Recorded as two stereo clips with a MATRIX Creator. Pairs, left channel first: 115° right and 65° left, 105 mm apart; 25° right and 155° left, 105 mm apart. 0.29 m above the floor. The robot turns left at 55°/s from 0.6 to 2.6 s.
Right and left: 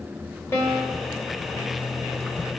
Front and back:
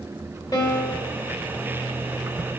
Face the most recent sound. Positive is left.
turn(degrees=-170)